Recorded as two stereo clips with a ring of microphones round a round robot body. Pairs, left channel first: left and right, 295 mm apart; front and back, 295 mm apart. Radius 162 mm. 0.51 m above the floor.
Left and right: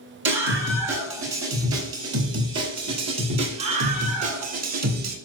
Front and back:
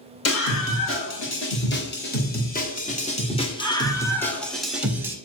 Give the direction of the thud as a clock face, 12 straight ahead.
No thud in this recording.